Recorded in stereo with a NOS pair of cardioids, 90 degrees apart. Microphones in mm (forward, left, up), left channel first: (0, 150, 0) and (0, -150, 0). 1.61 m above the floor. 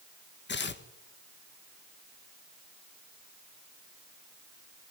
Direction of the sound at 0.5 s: 35° left.